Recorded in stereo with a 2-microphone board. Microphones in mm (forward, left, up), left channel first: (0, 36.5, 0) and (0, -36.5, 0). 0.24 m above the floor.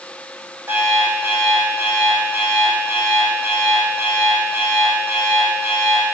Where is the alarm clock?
30° right (ahead or behind), 4 m.